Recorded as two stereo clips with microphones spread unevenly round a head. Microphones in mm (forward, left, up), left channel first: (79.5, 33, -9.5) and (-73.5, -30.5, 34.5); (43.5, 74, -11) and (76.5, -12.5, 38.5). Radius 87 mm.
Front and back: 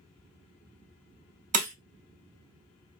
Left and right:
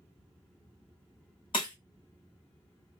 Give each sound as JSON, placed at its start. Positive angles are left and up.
{"t": 1.5, "sound": "breaking glass", "azimuth_deg": -175, "distance_m": 0.9}